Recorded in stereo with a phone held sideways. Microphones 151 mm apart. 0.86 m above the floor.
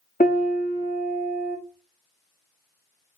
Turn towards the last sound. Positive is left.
turn(degrees=65)  # may be behind; listen again after turning